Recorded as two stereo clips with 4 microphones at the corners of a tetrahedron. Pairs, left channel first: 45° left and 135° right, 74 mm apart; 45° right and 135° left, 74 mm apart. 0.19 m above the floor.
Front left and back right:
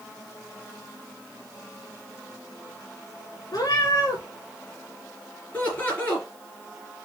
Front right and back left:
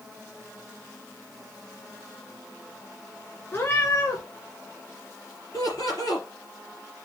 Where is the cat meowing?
15° left, 3 m.